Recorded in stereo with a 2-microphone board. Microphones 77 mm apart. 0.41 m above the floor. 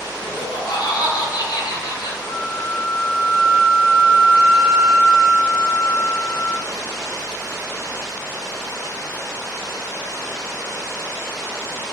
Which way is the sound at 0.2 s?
55° left (ahead or behind).